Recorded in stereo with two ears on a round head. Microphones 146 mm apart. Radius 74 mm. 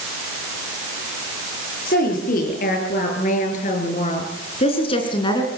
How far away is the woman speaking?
About 7.5 m.